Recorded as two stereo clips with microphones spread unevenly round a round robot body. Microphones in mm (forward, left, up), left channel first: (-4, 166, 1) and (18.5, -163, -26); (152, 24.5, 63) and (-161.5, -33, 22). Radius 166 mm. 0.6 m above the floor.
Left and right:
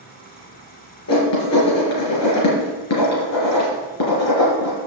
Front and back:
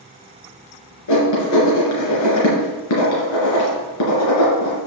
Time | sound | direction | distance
1.1 | writing | 50° left | 3.5 m